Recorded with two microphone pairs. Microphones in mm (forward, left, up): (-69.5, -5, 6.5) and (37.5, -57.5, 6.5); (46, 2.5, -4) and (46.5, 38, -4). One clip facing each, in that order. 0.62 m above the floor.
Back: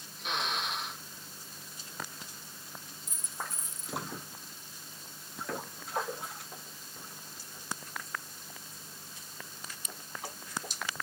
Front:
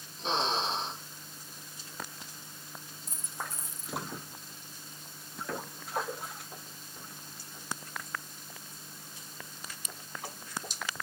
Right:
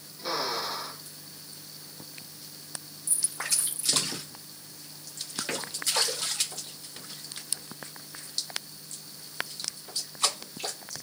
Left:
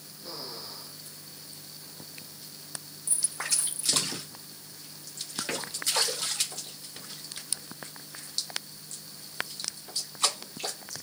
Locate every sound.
0.2 s a drill: 85° right
3.1 s a dropped coin: 30° left